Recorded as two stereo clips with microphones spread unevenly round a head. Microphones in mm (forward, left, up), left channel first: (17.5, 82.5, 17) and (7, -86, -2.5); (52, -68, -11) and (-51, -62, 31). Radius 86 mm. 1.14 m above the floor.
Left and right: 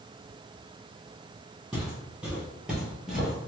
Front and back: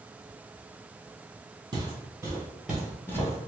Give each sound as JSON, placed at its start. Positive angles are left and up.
{"t": 1.7, "sound": "footsteps", "azimuth_deg": 180, "distance_m": 1.9}